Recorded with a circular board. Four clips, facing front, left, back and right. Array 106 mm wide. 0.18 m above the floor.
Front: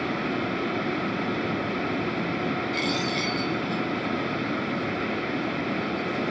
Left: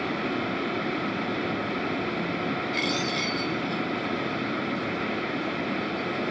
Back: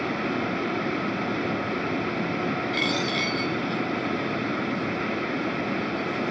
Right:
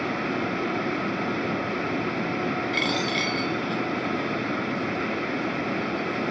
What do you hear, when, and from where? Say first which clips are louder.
2.7 s a dropped coin: right 2 dB, back 1 dB; 115° right, 3 m